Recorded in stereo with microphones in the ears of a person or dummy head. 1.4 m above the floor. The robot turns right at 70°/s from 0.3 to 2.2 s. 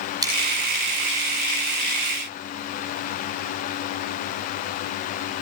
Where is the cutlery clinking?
20° right (ahead or behind), 7 m; by 0.3 s 15° right (ahead or behind), 7 m.